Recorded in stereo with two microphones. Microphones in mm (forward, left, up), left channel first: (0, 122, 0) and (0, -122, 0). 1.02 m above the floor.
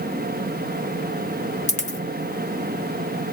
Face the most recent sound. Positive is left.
turn(degrees=30)  # may be behind; listen again after turning